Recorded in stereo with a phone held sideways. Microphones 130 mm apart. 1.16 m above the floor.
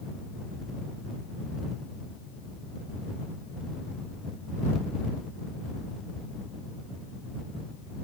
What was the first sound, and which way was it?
Only background noise.